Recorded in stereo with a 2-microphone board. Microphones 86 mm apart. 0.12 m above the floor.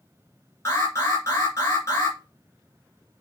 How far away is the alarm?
About 2 m.